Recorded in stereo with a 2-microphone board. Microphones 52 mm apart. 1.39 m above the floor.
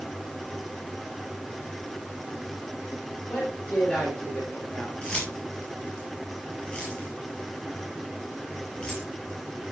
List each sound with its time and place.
3.3 s a woman speaking: 35° left (ahead or behind), 7 m
5.0 s keys jangling: 20° left (ahead or behind), 7.5 m